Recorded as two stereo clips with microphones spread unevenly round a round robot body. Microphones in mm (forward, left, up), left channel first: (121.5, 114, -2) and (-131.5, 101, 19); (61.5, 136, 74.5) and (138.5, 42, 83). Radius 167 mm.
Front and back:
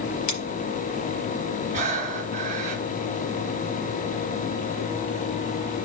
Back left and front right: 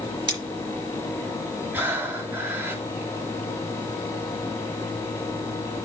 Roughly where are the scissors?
Ahead.